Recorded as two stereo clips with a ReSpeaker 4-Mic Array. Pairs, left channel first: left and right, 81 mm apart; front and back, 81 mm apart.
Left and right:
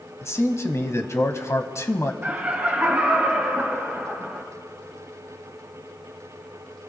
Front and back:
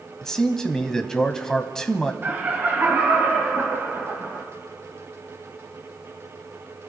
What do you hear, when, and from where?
0.2 s a man speaking: 80° left, 1.1 m
2.2 s laughter: 140° right, 1.5 m